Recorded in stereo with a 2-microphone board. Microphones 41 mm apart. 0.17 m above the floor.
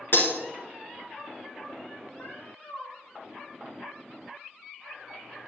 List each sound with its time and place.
0.1 s breaking glass: 55° left (ahead or behind), 1.4 m
2.2 s a cat meowing: 50° left (ahead or behind), 1.4 m